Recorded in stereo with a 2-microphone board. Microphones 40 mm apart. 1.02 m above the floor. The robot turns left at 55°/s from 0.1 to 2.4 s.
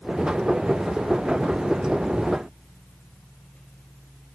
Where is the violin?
I don't hear a violin.